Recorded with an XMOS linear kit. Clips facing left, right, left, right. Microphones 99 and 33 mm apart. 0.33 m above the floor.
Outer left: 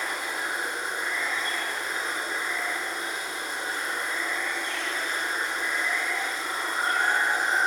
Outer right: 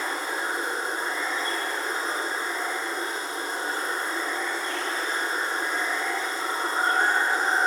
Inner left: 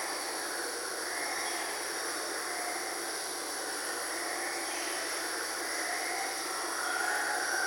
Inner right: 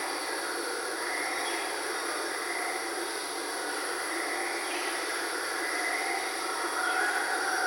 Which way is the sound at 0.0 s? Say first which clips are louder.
Outer right 2 dB, inner right 4 dB; 30° right (ahead or behind).